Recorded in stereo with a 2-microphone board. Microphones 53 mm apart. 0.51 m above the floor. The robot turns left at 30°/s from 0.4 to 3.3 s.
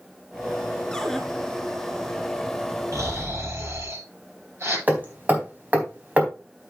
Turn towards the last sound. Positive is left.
turn(degrees=-30)  # may be behind; listen again after turning